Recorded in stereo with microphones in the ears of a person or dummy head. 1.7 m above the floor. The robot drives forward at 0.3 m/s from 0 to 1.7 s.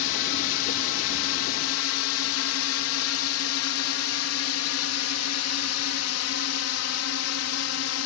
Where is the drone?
65° left (ahead or behind); by 8.1 s 75° left (ahead or behind).